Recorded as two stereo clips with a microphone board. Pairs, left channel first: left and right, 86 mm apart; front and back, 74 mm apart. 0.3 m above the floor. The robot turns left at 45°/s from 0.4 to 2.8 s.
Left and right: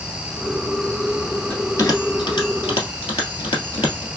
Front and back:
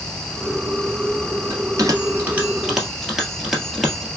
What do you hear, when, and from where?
1.5 s a bell: 155° left, 1.6 m; by 4.1 s 95° left, 1.6 m